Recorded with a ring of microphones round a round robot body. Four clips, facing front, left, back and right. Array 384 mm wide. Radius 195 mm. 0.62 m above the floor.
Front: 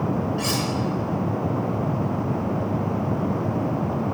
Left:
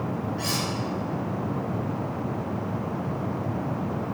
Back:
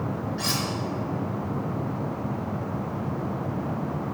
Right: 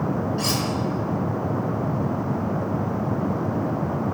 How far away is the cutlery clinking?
About 1.7 m.